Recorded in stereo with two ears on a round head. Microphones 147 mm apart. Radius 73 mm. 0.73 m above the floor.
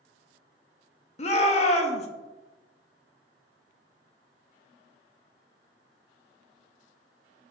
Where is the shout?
40° left (ahead or behind), 0.6 m.